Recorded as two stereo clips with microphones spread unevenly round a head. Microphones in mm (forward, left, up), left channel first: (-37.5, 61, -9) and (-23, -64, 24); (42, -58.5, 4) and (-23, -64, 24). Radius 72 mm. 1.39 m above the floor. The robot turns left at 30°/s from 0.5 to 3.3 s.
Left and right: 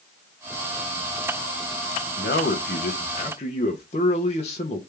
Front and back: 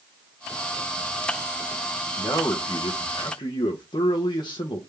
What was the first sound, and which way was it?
A man speaking, 80° left.